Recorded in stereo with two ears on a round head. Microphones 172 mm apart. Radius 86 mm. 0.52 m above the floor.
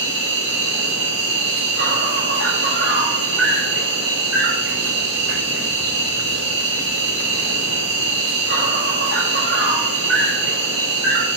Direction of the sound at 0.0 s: 70° right (ahead or behind).